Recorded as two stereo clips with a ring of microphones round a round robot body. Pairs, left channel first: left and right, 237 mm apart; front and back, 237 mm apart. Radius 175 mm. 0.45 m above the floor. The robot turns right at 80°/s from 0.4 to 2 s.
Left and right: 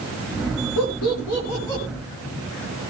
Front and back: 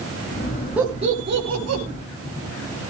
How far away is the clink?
No clink in this recording.